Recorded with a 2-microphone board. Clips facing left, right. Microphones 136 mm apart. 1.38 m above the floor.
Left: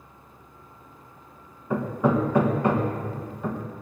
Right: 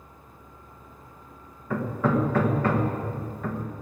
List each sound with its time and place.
1.7 s hammering: 15° left (ahead or behind), 1.3 m